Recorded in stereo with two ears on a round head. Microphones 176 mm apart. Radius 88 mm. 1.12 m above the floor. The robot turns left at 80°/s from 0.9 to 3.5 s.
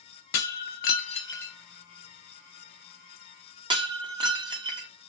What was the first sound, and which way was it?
Breaking glass, 50° left (ahead or behind).